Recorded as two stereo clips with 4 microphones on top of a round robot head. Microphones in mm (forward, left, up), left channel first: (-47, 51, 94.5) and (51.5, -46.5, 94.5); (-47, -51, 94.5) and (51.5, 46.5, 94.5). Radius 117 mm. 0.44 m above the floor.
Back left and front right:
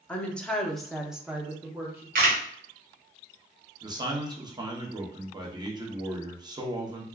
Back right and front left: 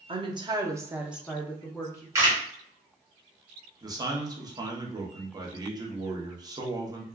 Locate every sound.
0.1 s a woman speaking: 60° left, 1.0 m; by 2.0 s 100° right, 0.9 m
2.1 s a camera shutter: 30° right, 1.3 m
3.8 s a man speaking: straight ahead, 0.9 m